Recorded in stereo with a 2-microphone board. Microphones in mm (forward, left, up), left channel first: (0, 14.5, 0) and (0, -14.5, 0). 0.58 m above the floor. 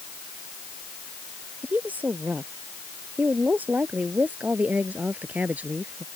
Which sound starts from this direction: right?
A woman speaking, at 1.6 s.